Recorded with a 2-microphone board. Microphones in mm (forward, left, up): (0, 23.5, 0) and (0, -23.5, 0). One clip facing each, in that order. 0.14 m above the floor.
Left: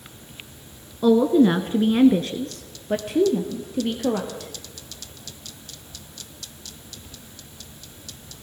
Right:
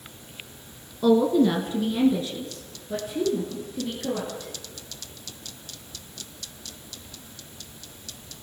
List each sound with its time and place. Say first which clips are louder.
1.0 s a woman speaking: left 3 dB; 10° left (ahead or behind), 1.4 m; by 4.5 s 65° left (ahead or behind), 4 m